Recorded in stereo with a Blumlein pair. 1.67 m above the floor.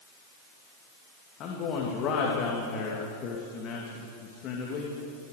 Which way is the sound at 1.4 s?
35° left.